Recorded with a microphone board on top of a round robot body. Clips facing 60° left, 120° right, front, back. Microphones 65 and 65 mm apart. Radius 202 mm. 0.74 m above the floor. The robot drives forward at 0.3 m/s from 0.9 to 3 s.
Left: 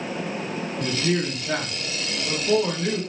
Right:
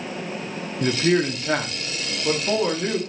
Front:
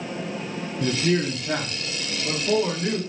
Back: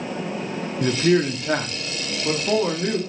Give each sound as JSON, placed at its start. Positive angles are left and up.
{"t": 0.8, "sound": "a man speaking", "azimuth_deg": -160, "distance_m": 0.7}